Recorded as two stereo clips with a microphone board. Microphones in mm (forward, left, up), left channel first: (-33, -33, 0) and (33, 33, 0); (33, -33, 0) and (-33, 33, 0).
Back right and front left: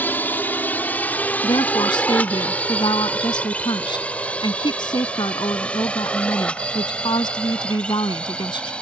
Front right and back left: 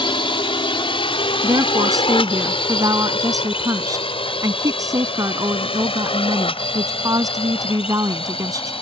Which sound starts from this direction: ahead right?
A drone, at 0.0 s.